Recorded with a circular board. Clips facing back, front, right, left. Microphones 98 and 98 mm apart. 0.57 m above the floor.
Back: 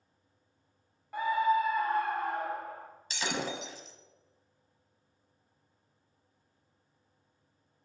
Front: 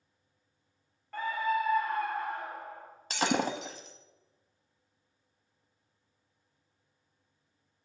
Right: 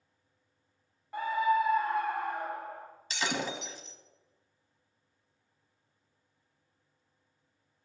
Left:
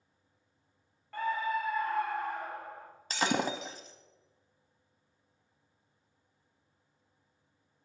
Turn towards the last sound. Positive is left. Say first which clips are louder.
# front 6 dB, left 4 dB
turn(degrees=40)